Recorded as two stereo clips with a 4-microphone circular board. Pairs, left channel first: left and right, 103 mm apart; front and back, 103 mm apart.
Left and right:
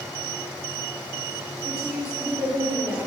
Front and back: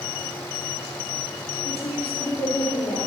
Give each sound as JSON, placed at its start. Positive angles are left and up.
{"t": 1.6, "sound": "a woman speaking", "azimuth_deg": -10, "distance_m": 6.5}